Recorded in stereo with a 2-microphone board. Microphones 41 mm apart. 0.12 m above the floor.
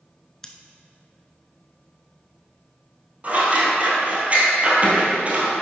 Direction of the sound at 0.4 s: 15° left (ahead or behind).